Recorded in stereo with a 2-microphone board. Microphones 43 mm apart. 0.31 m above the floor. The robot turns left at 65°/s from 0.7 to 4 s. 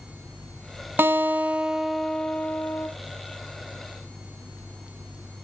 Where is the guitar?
120° right, 1.0 m; by 2.9 s 120° left, 1.0 m.